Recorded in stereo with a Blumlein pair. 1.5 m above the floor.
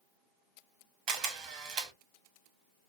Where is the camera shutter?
35° right, 0.7 m.